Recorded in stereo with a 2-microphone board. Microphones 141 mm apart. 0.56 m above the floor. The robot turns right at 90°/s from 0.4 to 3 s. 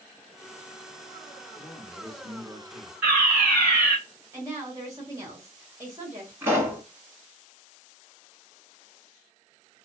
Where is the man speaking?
165° left, 1.0 m; by 2.9 s 75° right, 1.0 m.